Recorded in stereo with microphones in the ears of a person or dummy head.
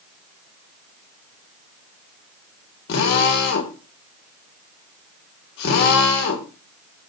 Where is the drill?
55° left (ahead or behind), 3 m.